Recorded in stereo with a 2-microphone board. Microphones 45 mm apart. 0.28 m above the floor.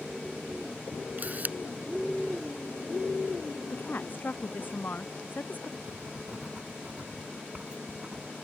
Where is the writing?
25° right (ahead or behind).